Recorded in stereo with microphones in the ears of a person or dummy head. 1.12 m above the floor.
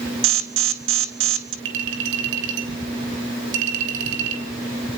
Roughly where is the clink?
Right.